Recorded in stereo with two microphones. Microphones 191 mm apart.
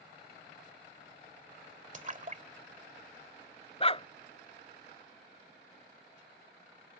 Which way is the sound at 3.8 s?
30° left (ahead or behind).